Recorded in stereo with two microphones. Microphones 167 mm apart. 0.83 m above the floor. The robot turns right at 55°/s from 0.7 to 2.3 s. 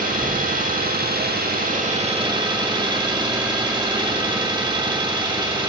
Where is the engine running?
120° right, 1.4 m; by 5.7 s 30° right, 1.4 m.